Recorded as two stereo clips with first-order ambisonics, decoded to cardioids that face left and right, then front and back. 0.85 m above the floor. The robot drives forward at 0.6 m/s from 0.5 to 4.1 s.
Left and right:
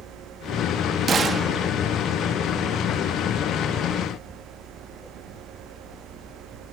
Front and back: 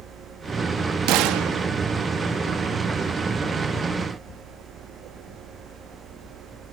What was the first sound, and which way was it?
A gunshot, 155° right.